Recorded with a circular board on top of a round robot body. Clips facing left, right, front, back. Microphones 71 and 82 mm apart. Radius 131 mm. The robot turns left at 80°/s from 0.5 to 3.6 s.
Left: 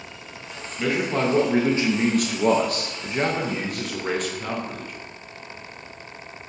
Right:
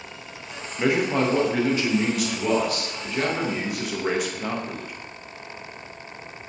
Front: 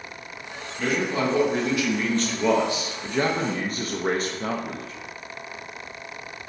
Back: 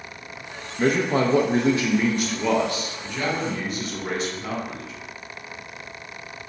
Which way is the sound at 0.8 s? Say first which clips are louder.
Right 2 dB, back 4 dB; 140° right.